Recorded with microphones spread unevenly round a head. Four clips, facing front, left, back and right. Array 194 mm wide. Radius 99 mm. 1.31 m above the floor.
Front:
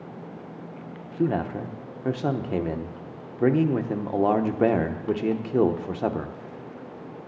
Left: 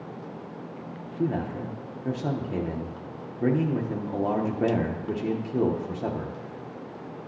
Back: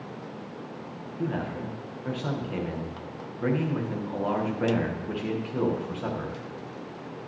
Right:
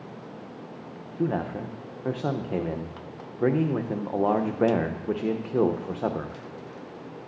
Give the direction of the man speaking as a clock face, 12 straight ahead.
1 o'clock.